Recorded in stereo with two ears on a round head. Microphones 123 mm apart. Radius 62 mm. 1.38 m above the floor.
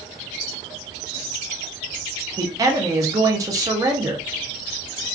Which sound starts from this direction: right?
A man speaking, at 2.4 s.